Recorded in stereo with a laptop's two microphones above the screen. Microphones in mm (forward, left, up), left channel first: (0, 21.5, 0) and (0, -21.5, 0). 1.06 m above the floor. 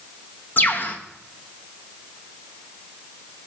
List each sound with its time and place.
0.6 s a bird: 55° left (ahead or behind), 1.0 m